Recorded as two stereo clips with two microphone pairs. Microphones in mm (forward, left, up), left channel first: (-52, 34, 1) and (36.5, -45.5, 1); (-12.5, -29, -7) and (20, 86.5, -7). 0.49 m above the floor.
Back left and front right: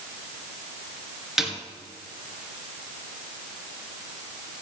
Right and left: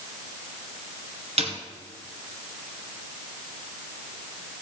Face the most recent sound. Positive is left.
turn(degrees=45)